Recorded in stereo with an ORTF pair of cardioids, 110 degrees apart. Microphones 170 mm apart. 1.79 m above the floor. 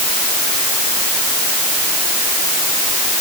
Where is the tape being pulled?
No tape being pulled in this recording.